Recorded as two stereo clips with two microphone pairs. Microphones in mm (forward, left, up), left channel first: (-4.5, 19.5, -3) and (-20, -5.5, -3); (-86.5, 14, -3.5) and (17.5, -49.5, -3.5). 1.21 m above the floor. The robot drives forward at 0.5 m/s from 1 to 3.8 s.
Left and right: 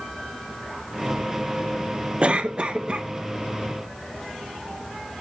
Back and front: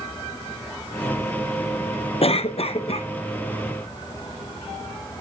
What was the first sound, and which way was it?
A cough, 175° right.